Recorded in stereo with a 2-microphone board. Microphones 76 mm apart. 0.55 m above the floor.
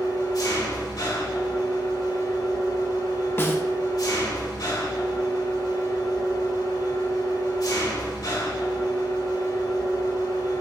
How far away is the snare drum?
About 0.8 m.